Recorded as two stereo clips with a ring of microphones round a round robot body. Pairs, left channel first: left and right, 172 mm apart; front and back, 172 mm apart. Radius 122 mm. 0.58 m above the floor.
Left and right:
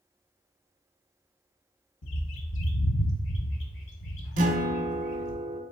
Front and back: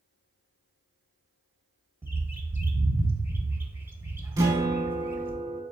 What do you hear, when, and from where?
2.0 s a bird: 100° left, 0.9 m
4.4 s a guitar: 110° right, 0.5 m